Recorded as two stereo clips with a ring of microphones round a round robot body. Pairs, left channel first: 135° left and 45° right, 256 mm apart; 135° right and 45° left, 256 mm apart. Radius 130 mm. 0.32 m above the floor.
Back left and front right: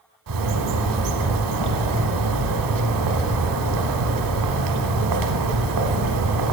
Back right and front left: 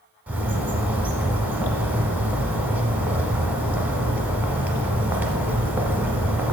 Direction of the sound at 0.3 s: 40° right.